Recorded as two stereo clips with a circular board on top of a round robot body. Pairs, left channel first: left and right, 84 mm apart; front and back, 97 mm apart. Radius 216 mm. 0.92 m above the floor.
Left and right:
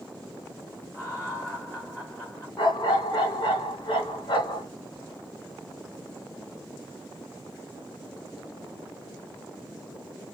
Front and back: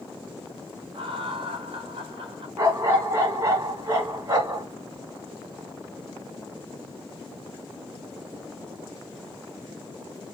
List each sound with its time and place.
0.9 s laughter: 155° left, 2.5 m
2.6 s a dog barking: 120° left, 2.5 m